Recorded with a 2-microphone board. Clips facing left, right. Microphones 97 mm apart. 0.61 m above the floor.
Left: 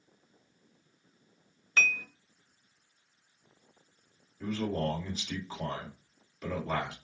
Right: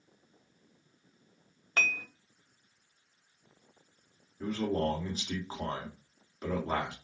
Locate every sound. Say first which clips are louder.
1.8 s dishes clattering: left 2 dB; 50° right (ahead or behind), 0.6 m
4.4 s a man speaking: right 1 dB; 35° right (ahead or behind), 1.8 m